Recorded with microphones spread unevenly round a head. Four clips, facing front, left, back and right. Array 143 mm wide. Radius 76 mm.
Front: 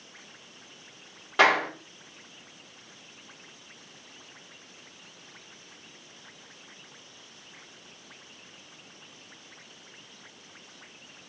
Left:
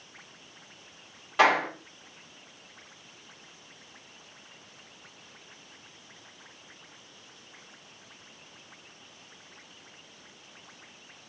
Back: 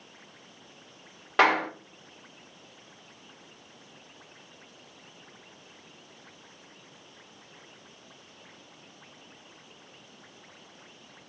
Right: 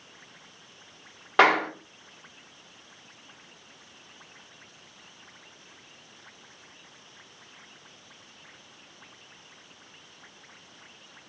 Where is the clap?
85° right, 2.5 m.